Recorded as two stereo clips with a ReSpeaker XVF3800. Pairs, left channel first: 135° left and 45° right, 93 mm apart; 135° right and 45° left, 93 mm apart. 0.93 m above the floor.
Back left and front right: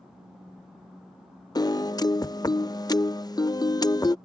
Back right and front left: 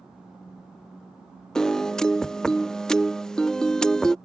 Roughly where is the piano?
Behind left.